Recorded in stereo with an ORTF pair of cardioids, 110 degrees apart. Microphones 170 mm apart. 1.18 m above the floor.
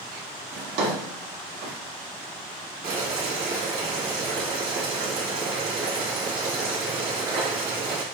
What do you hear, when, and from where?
0.5 s a drawer: 70° right, 1.7 m
2.8 s boiling: 65° right, 1.6 m